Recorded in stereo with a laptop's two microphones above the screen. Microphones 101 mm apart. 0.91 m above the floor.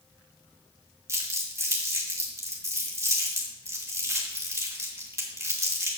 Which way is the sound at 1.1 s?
25° right (ahead or behind).